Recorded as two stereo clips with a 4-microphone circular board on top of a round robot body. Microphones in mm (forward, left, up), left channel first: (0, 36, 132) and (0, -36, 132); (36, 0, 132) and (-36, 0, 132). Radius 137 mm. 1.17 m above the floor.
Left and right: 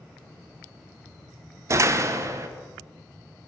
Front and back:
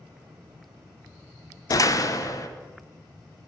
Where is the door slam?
40° right, 0.6 m.